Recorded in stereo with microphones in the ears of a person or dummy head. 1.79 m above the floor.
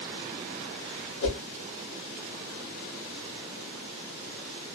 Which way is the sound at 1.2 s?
65° left (ahead or behind).